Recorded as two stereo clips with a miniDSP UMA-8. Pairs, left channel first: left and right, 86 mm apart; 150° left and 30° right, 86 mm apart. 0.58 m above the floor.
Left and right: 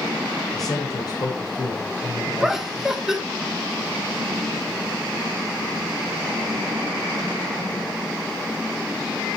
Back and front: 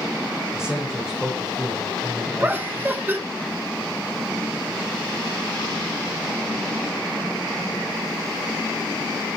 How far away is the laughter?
About 1.0 m.